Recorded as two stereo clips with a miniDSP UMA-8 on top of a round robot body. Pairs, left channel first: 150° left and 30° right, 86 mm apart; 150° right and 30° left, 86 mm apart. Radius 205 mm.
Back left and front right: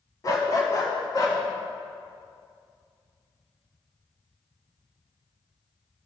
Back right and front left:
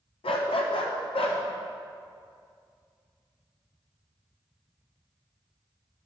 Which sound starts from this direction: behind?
A dog barking, at 0.2 s.